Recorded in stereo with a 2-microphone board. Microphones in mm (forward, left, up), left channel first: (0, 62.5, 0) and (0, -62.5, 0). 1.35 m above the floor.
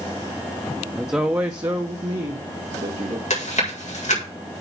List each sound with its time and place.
0.9 s a woman speaking: centre (ahead or behind), 1.0 m; by 3.2 s 70° right (ahead or behind), 1.9 m
3.3 s chewing: 70° left (ahead or behind), 4 m